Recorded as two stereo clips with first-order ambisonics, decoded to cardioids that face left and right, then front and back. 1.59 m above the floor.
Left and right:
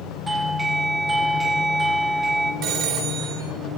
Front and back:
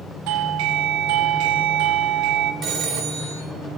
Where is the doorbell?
170° right, 1.0 m.